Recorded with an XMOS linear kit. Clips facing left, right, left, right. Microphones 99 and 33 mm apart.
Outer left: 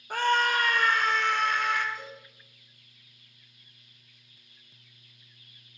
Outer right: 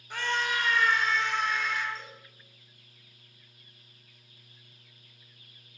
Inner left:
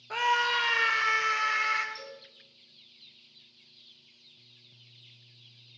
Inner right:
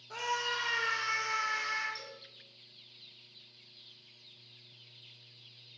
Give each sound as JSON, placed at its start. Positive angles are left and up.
{"t": 0.1, "sound": "a scream", "side_deg": 45, "distance_m": 1.6}
{"t": 1.9, "sound": "a cowbell", "side_deg": 15, "distance_m": 2.5}